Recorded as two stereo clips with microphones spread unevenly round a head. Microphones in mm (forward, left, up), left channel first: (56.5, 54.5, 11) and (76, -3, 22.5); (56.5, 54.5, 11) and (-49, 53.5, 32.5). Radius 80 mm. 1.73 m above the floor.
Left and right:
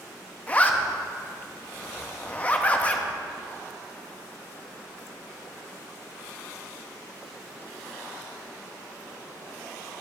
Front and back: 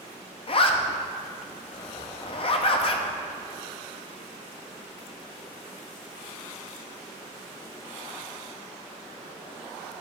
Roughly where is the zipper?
Ahead left.